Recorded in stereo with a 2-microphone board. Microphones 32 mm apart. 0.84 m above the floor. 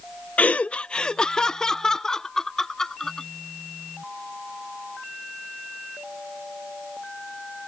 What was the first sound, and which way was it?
Laughter, 45° left (ahead or behind).